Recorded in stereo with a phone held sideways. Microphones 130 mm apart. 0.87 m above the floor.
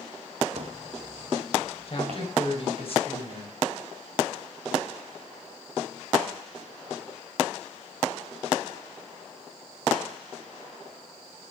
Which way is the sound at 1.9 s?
45° left (ahead or behind).